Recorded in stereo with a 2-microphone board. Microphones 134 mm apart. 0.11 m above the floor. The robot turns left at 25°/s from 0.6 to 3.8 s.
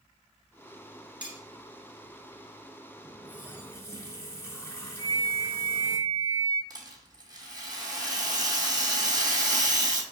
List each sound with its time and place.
1.2 s cutlery clinking: 10° right (ahead or behind), 1.0 m; by 1.4 s 15° right (ahead or behind), 1.0 m
3.0 s a running tap: 10° left (ahead or behind), 0.8 m; by 6.0 s 20° left (ahead or behind), 0.8 m
5.0 s a flute: 15° left (ahead or behind), 1.5 m
6.7 s a rattle: 30° right (ahead or behind), 1.1 m